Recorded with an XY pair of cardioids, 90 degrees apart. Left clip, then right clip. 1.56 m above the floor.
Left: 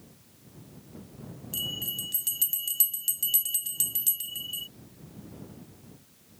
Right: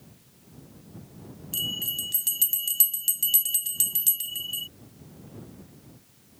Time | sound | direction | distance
1.5 | a bell | 25° right | ?